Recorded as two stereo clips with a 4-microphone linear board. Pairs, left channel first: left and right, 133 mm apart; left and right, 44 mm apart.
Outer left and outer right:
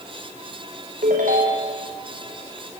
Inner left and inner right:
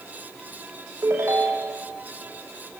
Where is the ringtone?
75° right (ahead or behind), 4.5 m.